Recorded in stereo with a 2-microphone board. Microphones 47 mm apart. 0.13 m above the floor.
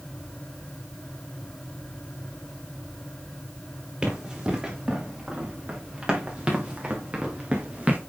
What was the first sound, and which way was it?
Running footsteps, 25° right (ahead or behind).